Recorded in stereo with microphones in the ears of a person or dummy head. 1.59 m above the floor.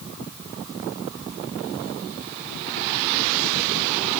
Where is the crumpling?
I don't hear crumpling.